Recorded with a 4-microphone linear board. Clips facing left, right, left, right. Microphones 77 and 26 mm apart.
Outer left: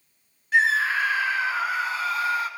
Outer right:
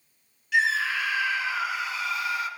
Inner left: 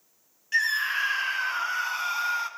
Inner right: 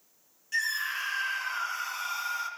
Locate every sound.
0.5 s a scream: 35° left (ahead or behind), 1.6 m